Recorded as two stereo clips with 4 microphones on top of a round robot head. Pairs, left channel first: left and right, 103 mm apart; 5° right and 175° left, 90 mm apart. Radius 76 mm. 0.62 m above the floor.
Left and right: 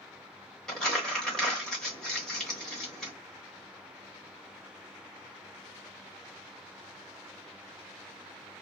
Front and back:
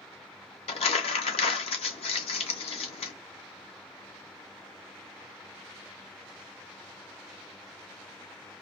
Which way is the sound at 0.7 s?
5° left.